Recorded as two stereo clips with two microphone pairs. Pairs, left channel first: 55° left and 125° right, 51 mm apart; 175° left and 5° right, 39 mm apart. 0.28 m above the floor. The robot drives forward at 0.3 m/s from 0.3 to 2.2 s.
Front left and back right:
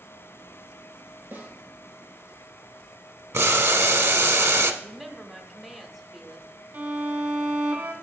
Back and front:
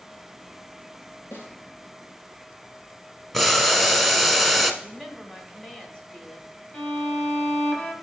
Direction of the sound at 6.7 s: 140° right.